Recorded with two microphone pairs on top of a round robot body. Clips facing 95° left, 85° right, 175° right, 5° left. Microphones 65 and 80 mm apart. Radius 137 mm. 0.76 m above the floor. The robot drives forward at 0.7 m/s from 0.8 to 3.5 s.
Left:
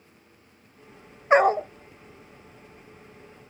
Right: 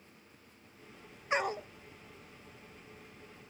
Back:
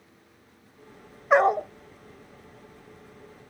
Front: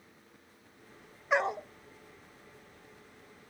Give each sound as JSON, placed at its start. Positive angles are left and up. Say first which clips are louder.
{"t": 1.3, "sound": "a dog barking", "louder": "left 15 dB, back 10 dB", "azimuth_deg": 140}